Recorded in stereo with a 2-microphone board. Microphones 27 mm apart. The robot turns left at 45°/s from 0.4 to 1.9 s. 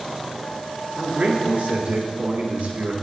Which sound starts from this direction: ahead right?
A man speaking, at 1.0 s.